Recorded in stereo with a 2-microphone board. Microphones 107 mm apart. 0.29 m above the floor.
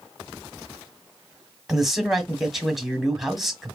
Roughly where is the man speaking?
Centre.